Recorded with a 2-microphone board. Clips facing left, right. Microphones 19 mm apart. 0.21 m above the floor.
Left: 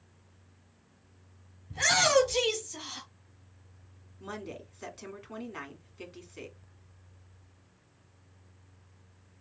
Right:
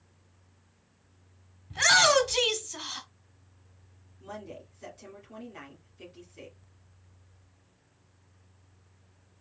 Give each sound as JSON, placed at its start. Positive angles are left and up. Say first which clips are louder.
{"t": 1.7, "sound": "a shout", "louder": "right 3 dB", "side_deg": -25, "distance_m": 1.8}
{"t": 4.2, "sound": "a woman speaking", "louder": "left 2 dB", "side_deg": 40, "distance_m": 1.9}